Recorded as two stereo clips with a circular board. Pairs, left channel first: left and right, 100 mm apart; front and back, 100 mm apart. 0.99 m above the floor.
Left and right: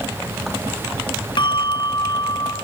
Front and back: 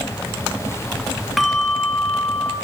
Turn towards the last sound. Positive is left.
turn(degrees=90)